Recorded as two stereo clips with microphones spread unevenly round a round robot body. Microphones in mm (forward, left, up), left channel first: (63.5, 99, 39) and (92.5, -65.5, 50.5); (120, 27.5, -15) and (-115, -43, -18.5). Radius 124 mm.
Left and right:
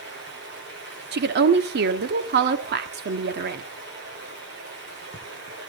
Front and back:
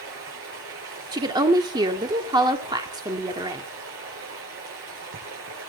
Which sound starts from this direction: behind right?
Running water, at 0.0 s.